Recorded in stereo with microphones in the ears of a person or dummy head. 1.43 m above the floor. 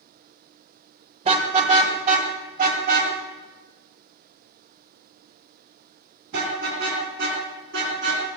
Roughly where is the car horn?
Right.